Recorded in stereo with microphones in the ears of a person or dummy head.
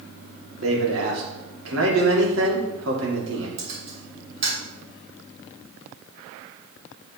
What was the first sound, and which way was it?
A man speaking, 85° right.